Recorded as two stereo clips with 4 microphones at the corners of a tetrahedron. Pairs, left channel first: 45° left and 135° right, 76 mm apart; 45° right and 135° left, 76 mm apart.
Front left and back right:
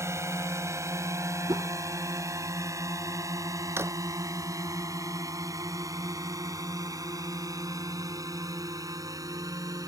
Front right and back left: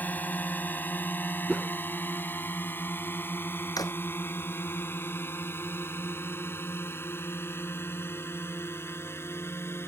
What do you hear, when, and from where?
0.0 s a drone: 105° right; by 9.9 s 100° right
1.5 s a whoosh: 135° right
3.8 s a drawer: 80° right